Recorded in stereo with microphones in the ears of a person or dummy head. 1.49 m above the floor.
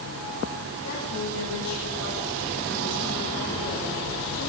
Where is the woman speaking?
85° left, 10 m; by 4.5 s 70° left (ahead or behind), 8.5 m.